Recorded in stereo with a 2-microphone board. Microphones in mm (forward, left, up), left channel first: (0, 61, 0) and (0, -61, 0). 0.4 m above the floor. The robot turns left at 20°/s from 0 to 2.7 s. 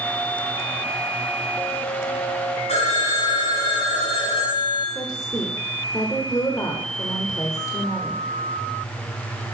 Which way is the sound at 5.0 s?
30° left (ahead or behind).